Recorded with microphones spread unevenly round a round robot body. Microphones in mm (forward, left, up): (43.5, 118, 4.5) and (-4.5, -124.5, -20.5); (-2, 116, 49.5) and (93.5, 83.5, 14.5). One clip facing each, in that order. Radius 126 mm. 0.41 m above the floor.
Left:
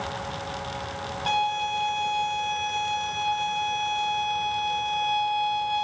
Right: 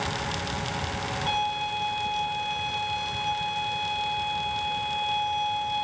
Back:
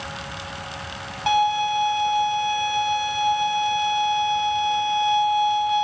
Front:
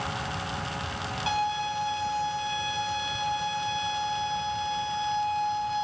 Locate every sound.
1.3 s a violin: 130° left, 1.1 m